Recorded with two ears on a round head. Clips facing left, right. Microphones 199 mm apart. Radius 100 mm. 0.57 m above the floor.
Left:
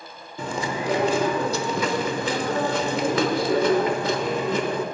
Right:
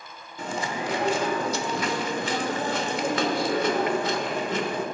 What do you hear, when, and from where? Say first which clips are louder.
0.4 s chewing: left 3 dB; 70° left (ahead or behind), 1.0 m